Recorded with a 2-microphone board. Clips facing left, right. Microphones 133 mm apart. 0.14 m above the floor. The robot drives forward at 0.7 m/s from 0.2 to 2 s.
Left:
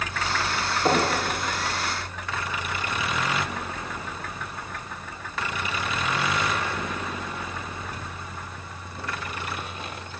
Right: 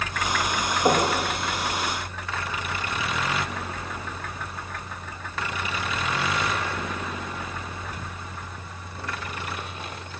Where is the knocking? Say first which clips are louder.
Right 1 dB; 10° right (ahead or behind), 4.5 m.